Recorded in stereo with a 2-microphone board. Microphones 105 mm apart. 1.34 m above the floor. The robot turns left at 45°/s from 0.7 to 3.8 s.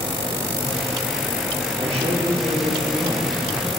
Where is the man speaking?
70° right, 2.5 m; by 3.7 s 155° right, 2.5 m.